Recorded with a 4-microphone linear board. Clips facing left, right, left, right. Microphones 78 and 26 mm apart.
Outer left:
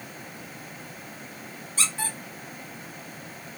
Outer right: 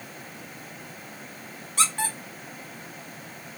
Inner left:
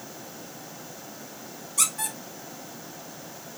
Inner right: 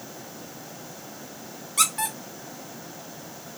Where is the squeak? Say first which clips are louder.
Outer right 5 dB, inner right 4 dB; 65° right (ahead or behind), 1.1 m.